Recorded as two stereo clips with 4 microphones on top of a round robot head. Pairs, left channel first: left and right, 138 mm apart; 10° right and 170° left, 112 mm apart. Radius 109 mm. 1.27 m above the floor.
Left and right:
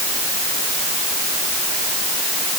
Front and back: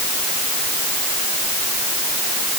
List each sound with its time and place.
Only background noise.